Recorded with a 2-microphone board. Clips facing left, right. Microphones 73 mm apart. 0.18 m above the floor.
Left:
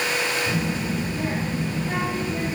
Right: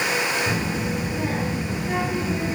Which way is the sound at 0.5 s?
30° right (ahead or behind).